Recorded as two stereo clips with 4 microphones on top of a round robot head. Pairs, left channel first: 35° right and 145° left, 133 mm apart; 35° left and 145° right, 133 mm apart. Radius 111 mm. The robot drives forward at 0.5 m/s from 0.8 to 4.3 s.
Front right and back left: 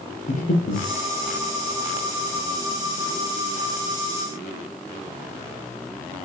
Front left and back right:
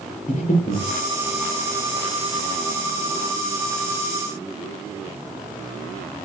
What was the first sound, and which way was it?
Breathing, 5° right.